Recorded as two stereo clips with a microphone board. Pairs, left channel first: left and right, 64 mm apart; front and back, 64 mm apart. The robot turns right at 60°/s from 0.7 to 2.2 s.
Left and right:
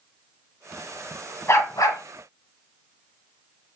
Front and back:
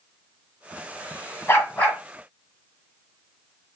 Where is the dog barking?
45° left, 1.2 m; by 2.0 s 80° left, 1.2 m.